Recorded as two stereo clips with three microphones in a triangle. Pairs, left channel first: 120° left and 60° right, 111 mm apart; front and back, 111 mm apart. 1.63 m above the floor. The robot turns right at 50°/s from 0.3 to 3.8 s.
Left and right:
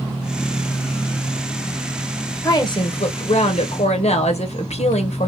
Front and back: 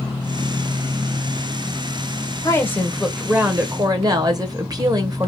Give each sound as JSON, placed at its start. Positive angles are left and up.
{"t": 2.4, "sound": "a woman speaking", "azimuth_deg": 60, "distance_m": 1.3}